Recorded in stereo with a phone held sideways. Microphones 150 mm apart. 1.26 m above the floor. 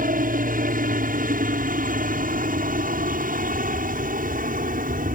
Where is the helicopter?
65° right (ahead or behind).